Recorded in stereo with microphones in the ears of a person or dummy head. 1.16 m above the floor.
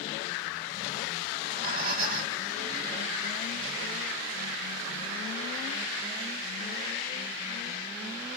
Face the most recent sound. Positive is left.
turn(degrees=-55)  # may be behind; listen again after turning